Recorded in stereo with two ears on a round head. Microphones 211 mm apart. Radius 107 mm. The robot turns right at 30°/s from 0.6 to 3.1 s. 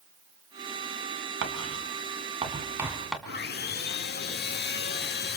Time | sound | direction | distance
1.4 | writing | 55° right (ahead or behind) | 1.8 m
3.3 | sawing | 45° left (ahead or behind) | 1.1 m